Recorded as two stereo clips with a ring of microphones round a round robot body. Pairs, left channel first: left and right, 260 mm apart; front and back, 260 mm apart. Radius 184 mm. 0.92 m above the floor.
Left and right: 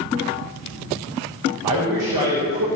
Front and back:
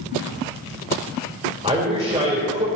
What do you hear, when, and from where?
1.6 s a man speaking: 110° right, 3.5 m